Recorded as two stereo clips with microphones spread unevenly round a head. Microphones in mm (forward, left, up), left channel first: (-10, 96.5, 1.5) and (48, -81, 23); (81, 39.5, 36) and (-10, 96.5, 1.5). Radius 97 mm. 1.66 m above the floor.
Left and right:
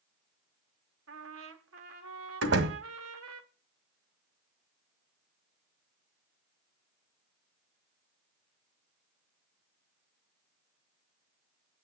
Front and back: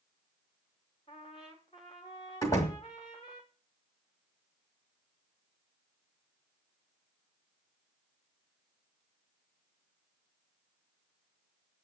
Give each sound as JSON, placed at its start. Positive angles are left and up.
{"t": 1.1, "sound": "a trumpet", "azimuth_deg": -90, "distance_m": 1.3}
{"t": 2.4, "sound": "a door slam", "azimuth_deg": -95, "distance_m": 1.6}